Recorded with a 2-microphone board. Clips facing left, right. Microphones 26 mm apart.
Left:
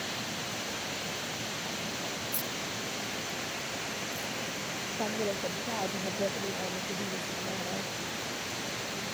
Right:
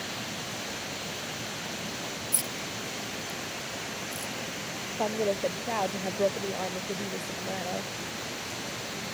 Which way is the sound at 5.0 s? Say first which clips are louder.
Right 5 dB; 65° right (ahead or behind).